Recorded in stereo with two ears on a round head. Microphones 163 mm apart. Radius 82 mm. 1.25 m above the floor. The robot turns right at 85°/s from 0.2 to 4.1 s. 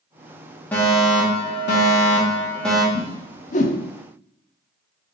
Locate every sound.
0.7 s a fire alarm: 10° left, 2.5 m; by 2.8 s 170° right, 2.5 m
2.9 s a whoosh: 15° left (ahead or behind), 0.9 m; by 3.8 s 45° left (ahead or behind), 0.9 m